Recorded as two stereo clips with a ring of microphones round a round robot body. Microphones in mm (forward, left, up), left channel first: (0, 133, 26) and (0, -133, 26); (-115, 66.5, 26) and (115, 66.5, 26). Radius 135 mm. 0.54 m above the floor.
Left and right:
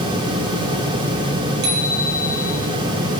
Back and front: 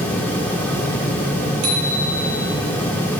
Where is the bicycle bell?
35° right, 9.5 m.